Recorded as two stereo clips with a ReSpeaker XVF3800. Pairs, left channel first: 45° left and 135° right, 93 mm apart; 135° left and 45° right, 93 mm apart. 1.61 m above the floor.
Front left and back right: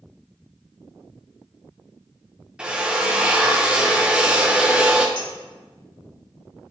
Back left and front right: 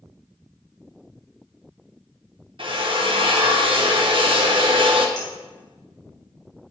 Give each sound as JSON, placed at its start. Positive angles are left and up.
{"t": 2.6, "sound": "a drill", "azimuth_deg": -55, "distance_m": 1.0}
{"t": 5.2, "sound": "dishes clattering", "azimuth_deg": 85, "distance_m": 3.5}